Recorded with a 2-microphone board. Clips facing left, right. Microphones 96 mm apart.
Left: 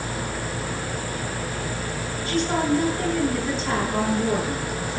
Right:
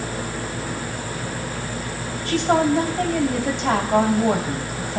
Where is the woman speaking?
75° right (ahead or behind), 3 m.